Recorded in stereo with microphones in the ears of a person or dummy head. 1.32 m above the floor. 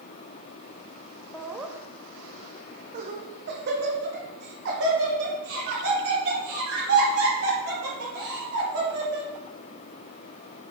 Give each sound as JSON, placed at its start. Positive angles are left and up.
{"t": 1.3, "sound": "laughter", "side_deg": 5, "distance_m": 0.8}